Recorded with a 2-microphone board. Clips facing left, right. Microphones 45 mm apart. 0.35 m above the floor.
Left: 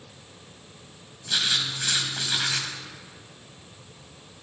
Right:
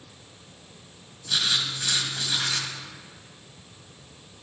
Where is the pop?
No pop in this recording.